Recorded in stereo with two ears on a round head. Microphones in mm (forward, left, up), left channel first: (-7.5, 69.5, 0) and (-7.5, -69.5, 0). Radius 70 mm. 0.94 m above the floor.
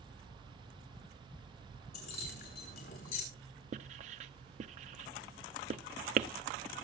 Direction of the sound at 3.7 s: 45° right (ahead or behind).